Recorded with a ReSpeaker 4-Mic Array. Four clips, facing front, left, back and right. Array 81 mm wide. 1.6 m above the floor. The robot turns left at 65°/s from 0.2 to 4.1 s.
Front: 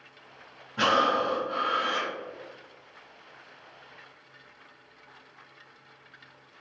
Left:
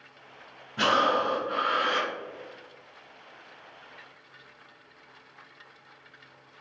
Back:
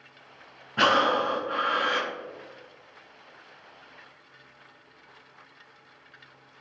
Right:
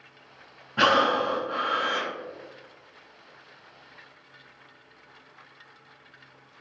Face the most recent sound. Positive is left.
turn(degrees=0)